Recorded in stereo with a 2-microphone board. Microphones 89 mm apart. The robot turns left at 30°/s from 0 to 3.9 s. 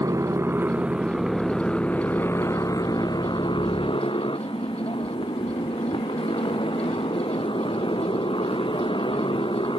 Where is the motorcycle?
140° right; by 9.8 s 105° left.